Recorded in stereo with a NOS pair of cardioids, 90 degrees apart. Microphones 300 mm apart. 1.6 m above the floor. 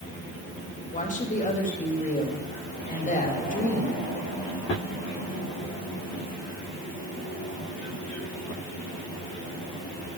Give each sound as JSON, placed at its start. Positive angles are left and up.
{"t": 0.9, "sound": "a woman speaking", "azimuth_deg": 25, "distance_m": 3.5}